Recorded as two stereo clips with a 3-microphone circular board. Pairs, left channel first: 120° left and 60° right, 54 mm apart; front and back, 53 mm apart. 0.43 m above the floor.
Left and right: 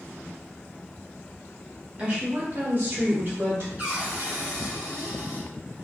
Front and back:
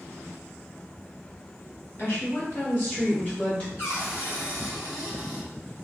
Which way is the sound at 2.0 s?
10° right.